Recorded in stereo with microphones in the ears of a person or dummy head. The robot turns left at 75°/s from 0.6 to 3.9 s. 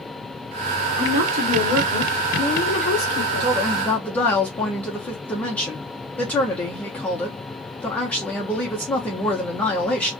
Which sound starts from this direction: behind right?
A woman speaking, at 3.4 s.